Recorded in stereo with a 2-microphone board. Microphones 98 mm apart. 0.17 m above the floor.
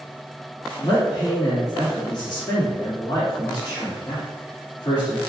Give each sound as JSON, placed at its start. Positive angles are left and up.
{"t": 0.8, "sound": "a man speaking", "side_deg": 45, "distance_m": 1.7}